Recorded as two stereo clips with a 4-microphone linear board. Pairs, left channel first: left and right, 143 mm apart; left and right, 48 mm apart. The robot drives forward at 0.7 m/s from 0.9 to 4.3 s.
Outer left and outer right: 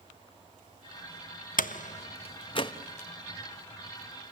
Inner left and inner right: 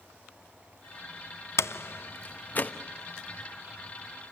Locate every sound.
1.6 s a door slam: 70° left (ahead or behind), 0.7 m; by 2.7 s 35° left (ahead or behind), 1.2 m